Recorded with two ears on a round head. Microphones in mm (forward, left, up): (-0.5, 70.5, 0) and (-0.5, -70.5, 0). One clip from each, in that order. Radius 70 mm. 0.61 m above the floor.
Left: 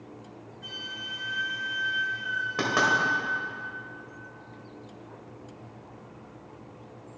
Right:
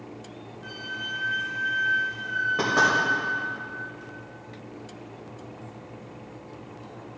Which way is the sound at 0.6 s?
70° left (ahead or behind).